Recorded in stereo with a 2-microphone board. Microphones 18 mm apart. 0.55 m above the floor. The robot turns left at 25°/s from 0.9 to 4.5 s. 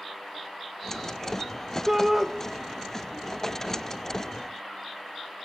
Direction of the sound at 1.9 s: 25° right (ahead or behind).